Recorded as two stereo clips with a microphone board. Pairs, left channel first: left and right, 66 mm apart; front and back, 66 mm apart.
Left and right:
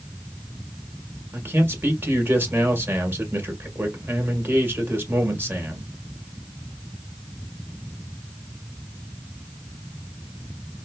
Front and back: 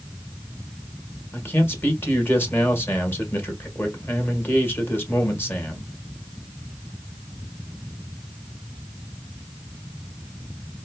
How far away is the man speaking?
About 1.5 m.